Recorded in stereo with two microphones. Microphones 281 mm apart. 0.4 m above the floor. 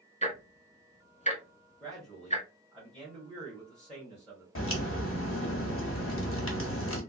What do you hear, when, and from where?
0.2 s ticking: 25° left (ahead or behind), 0.8 m
1.8 s a man speaking: 5° left (ahead or behind), 1.8 m
4.5 s a crack: 50° left (ahead or behind), 1.1 m